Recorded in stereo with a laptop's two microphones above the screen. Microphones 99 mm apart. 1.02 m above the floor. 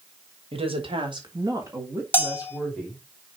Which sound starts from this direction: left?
A bell, at 2.1 s.